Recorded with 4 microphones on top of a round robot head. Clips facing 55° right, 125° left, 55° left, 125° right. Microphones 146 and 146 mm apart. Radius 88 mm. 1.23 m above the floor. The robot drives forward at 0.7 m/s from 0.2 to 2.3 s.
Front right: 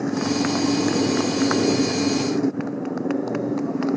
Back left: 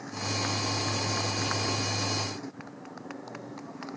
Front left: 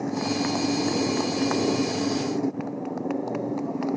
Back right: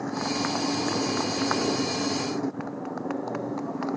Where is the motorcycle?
20° right.